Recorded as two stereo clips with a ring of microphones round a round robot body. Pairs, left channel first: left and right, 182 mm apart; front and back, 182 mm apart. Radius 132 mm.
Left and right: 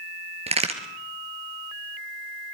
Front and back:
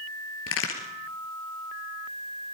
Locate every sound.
0.5 s a crack: 35° right, 3 m